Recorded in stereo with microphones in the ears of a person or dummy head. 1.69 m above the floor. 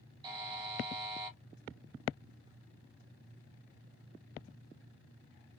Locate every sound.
0.2 s a buzzer: 25° right (ahead or behind), 1.7 m